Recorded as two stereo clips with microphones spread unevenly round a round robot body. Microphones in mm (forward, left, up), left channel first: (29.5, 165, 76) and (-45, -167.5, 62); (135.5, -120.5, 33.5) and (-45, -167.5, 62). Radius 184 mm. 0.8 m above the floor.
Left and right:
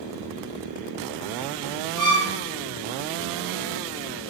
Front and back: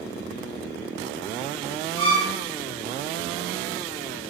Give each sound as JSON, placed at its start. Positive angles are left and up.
{"t": 2.0, "sound": "a violin", "azimuth_deg": 5, "distance_m": 0.9}